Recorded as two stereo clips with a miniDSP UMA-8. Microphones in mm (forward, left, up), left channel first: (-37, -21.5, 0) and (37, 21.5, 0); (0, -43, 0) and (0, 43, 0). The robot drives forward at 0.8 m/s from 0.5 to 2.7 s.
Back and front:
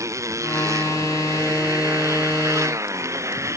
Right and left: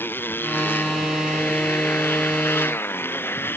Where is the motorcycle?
25° right.